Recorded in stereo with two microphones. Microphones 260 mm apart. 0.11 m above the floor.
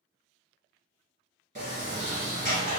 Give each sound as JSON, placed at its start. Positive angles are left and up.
{"t": 1.6, "sound": "a sliding door", "side_deg": -30, "distance_m": 1.6}